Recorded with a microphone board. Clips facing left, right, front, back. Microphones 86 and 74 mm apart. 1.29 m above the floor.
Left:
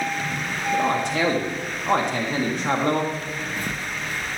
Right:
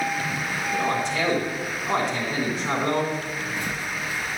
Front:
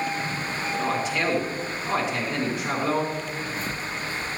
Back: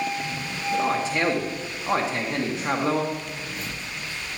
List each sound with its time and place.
0.7 s a man speaking: 120° left, 1.9 m
3.1 s footsteps: 105° left, 1.9 m; by 4.4 s 65° left, 2.5 m